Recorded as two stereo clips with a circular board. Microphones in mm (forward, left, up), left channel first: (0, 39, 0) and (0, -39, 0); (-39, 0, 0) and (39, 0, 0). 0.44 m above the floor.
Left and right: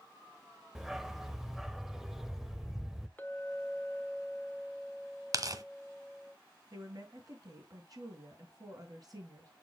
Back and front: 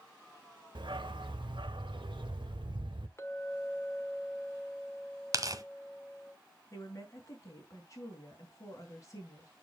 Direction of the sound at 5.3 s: 45° right.